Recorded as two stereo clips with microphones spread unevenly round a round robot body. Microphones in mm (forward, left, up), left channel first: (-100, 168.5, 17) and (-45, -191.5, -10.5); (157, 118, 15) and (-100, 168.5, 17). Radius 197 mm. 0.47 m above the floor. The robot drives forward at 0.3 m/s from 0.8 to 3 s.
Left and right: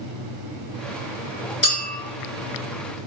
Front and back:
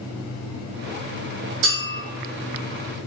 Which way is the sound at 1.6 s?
150° right.